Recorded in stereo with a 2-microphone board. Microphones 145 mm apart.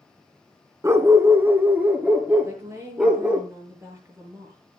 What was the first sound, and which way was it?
A dog barking, 20° right (ahead or behind).